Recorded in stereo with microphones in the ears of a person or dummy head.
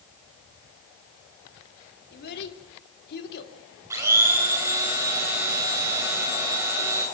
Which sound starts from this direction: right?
A blender, at 3.9 s.